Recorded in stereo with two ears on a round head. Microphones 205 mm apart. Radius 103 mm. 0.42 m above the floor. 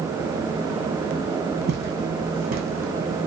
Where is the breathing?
I don't hear breathing.